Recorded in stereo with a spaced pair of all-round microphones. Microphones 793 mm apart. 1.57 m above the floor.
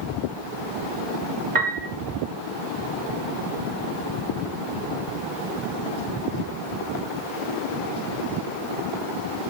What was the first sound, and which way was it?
A piano, 60° right (ahead or behind).